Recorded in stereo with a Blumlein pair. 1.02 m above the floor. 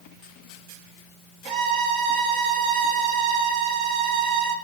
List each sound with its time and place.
1.4 s a violin: 35° right, 0.9 m